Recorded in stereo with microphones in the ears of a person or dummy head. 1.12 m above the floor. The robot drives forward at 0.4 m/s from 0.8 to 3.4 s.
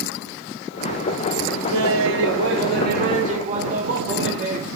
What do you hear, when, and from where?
1.7 s laughter: 65° right (ahead or behind), 0.6 m; by 4.7 s 40° right (ahead or behind), 0.9 m